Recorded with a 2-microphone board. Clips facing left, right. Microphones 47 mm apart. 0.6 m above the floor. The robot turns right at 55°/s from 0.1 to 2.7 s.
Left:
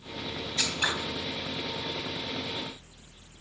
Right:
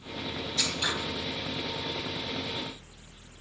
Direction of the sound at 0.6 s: 25° left (ahead or behind).